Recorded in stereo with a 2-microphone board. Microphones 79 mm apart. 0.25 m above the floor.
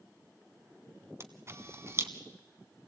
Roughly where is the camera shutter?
Right.